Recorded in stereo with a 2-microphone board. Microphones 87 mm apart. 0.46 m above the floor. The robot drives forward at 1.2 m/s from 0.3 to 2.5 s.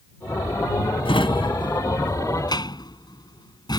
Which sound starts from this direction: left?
A drawer, at 1.1 s.